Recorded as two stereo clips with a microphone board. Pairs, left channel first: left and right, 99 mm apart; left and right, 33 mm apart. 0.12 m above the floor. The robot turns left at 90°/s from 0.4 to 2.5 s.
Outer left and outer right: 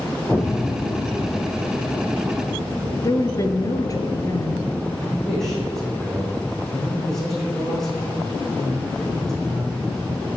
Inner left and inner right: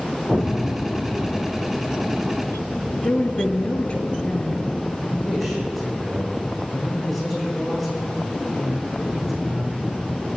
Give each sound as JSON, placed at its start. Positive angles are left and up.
{"t": 0.3, "sound": "an explosion", "azimuth_deg": 170, "distance_m": 1.7}
{"t": 3.0, "sound": "a woman speaking", "side_deg": 35, "distance_m": 1.8}
{"t": 5.0, "sound": "a man speaking", "side_deg": 5, "distance_m": 6.0}